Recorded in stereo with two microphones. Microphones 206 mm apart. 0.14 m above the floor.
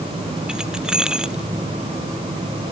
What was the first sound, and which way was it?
Keys jangling, 5° right (ahead or behind).